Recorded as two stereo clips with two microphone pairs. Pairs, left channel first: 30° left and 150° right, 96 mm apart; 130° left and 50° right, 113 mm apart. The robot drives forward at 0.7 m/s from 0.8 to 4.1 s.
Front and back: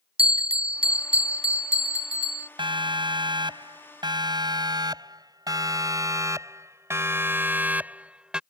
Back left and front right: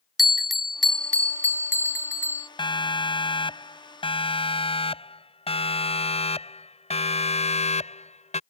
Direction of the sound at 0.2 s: 140° right.